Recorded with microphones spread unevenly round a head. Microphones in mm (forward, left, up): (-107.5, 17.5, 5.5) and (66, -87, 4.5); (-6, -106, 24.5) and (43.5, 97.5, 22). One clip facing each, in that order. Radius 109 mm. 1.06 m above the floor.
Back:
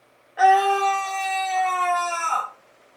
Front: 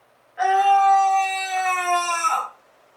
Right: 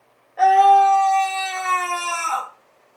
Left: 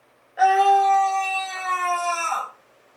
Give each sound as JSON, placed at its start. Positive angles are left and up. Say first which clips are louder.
{"t": 0.4, "sound": "a scream", "louder": "even, right 3 dB", "azimuth_deg": 155, "distance_m": 0.9}